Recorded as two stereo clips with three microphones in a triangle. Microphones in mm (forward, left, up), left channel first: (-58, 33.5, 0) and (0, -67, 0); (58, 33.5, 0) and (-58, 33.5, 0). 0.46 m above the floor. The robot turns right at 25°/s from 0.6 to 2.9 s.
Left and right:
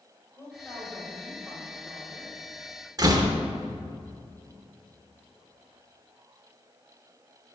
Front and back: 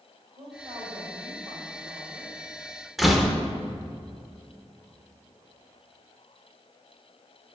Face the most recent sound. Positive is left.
turn(degrees=-90)